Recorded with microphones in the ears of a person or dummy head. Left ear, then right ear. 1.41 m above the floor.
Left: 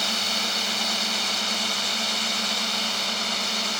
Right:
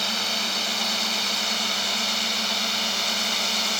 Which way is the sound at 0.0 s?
Centre (ahead or behind).